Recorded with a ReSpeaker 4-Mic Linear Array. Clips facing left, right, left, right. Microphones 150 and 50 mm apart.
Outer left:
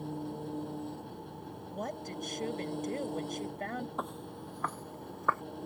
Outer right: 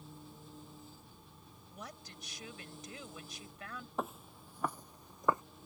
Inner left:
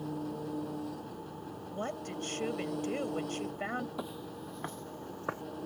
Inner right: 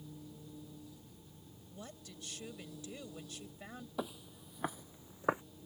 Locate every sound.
0.0 s an engine running: 65° left (ahead or behind)
1.7 s a woman speaking: 50° left (ahead or behind)
4.0 s footsteps: centre (ahead or behind); by 5.4 s 15° right (ahead or behind)